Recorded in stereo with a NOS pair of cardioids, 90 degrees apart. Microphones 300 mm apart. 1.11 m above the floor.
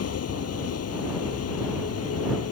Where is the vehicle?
55° left.